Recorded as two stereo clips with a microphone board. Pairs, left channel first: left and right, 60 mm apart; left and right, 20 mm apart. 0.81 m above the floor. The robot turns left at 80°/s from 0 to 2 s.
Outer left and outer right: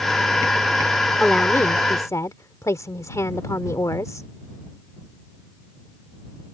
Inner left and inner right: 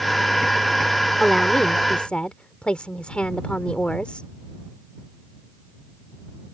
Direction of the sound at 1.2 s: 170° left.